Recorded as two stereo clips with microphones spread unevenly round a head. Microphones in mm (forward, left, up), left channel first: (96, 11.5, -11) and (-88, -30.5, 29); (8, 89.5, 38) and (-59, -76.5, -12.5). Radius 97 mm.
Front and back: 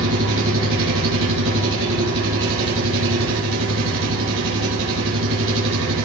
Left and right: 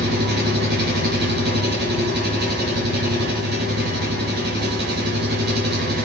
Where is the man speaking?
I don't hear a man speaking.